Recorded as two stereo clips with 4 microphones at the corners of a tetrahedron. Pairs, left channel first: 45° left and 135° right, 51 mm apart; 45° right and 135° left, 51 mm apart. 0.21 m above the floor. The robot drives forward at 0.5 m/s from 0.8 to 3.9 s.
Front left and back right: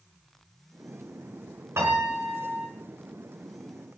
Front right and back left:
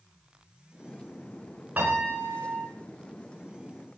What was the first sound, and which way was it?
A piano, 170° right.